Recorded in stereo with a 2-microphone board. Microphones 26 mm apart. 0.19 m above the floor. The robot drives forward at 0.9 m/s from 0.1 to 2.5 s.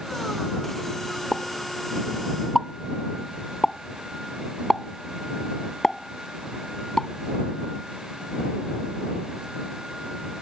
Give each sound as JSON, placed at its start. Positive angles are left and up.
{"t": 1.3, "sound": "a pop", "side_deg": 15}